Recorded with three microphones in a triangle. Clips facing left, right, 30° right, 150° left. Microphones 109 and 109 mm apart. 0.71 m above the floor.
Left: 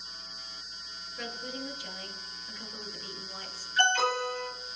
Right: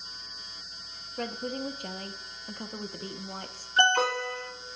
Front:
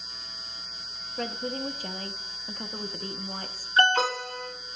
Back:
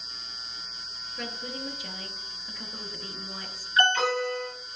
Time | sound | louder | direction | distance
1.2 | a woman speaking | right 6 dB, front 5 dB | 65° right | 0.8 m
3.8 | an alarm | right 2 dB, front 1 dB | 80° right | 3 m